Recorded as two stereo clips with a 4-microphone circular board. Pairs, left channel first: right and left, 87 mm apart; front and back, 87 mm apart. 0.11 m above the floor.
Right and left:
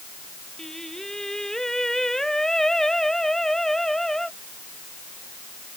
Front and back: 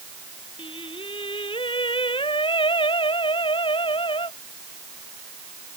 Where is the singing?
5° right.